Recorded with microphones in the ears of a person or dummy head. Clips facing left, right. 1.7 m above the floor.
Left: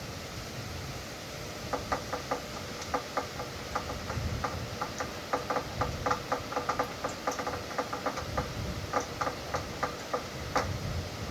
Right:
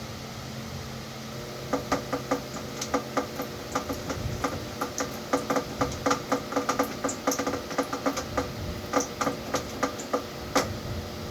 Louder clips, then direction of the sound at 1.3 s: Right 6 dB; 45° right (ahead or behind).